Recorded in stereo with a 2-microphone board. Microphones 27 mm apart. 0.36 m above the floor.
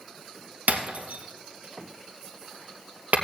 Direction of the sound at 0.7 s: 80° right.